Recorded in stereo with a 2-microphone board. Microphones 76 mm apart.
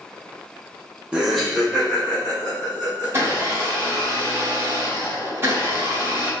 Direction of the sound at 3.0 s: 35° right (ahead or behind).